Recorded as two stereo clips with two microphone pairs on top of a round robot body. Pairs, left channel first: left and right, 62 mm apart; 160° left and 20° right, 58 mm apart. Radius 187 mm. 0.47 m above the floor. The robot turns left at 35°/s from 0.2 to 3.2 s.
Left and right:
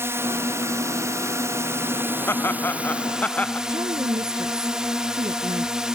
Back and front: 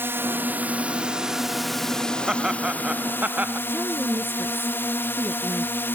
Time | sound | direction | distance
0.0 | a drone | 60° right | ?
2.3 | laughter | 70° left | ?
3.7 | a woman speaking | 75° right | ?